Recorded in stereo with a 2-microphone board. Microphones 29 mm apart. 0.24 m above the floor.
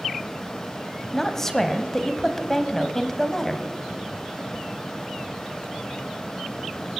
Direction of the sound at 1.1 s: 15° left (ahead or behind).